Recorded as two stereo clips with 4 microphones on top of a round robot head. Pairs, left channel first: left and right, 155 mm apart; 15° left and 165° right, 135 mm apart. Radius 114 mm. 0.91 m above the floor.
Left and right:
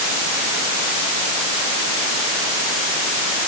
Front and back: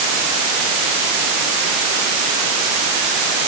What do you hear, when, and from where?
Only background noise.